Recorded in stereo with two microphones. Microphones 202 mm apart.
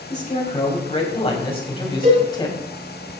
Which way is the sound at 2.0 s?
50° right (ahead or behind).